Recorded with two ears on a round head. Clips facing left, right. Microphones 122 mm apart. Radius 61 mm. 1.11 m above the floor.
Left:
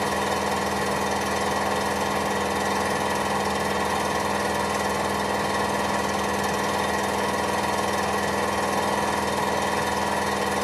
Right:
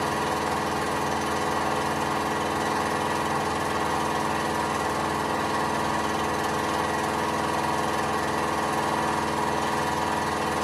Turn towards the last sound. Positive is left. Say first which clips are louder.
# left 1 dB
turn(degrees=15)  # may be behind; listen again after turning